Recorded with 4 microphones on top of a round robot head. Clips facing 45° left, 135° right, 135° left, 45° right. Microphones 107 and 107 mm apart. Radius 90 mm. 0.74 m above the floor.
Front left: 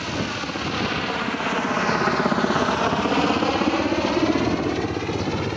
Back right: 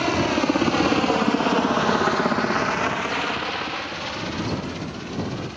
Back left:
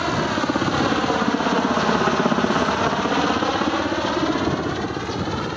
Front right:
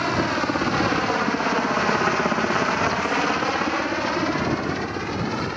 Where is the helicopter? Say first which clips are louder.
Back right 7 dB, back left 1 dB; 140° right; by 5.6 s 55° left.